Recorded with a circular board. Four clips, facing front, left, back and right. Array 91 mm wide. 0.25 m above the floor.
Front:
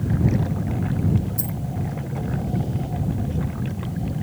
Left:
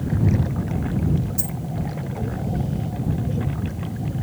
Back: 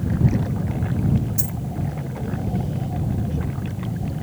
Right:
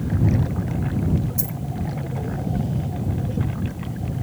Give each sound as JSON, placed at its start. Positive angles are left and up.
{"t": 1.4, "sound": "a dropped coin", "azimuth_deg": -165}